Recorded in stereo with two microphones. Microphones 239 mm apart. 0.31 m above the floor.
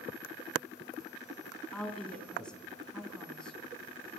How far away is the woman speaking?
About 3 m.